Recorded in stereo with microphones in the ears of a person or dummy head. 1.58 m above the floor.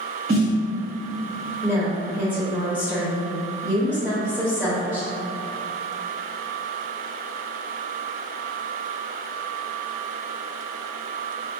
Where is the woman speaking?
5° right (ahead or behind), 0.7 m.